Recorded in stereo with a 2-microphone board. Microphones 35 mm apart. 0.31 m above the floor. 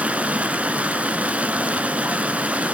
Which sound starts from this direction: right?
Running water, at 0.0 s.